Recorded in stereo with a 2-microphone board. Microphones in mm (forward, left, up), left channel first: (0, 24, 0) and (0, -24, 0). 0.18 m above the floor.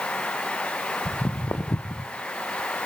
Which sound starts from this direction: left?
Footsteps, at 1.1 s.